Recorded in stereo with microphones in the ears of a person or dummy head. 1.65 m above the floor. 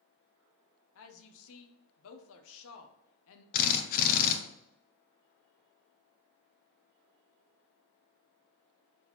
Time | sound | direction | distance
0.9 | a woman speaking | 70° left (ahead or behind) | 0.7 m
3.5 | a drill | 45° left (ahead or behind) | 0.6 m